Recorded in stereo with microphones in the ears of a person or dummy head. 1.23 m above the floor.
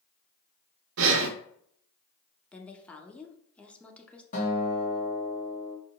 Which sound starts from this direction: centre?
A woman speaking, at 2.5 s.